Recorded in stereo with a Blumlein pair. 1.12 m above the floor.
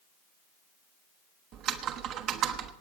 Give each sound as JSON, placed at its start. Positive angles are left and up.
{"t": 1.5, "sound": "typing on a keyboard", "azimuth_deg": -35, "distance_m": 1.1}